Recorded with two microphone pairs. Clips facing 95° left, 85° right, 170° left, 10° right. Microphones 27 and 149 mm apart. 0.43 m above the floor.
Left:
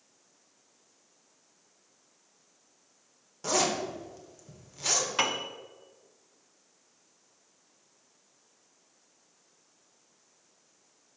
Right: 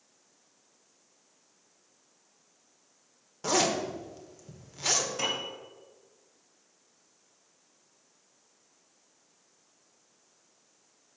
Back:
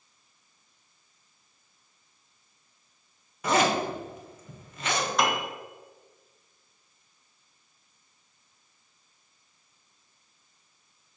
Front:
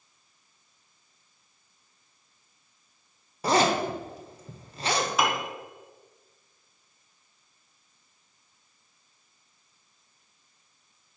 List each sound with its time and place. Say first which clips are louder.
3.4 s a zipper: right 1 dB, front 1 dB; 25° right, 1.1 m
5.2 s a piano: left 3 dB, even; 75° left, 1.2 m